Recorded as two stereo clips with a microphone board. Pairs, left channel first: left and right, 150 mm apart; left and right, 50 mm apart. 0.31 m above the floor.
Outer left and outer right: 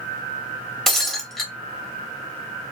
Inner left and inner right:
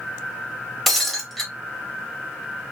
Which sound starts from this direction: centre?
Breaking glass, at 0.9 s.